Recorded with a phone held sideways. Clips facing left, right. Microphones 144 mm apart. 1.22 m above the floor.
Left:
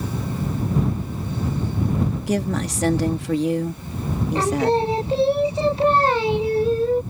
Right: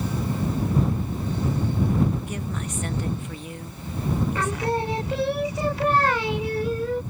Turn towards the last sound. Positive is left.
turn(degrees=30)  # may be behind; listen again after turning